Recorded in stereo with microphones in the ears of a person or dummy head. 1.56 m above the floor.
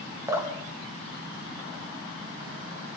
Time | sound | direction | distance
0.3 | dripping | 10° right (ahead or behind) | 1.3 m